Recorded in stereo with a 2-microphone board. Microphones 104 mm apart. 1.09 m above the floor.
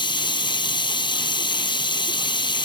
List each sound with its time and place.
0.0 s running water: 50° left (ahead or behind)